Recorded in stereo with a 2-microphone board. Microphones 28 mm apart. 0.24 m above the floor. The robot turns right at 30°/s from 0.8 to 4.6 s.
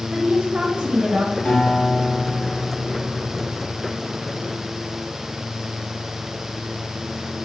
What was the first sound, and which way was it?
A woman speaking, 30° right (ahead or behind).